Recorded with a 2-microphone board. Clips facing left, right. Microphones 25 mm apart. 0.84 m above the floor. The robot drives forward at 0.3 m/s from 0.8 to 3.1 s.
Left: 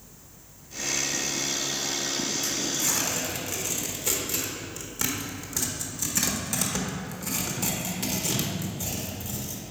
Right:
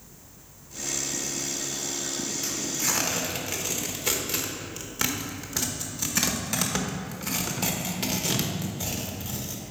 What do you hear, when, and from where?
2.4 s tearing paper: 30° right (ahead or behind), 1.1 m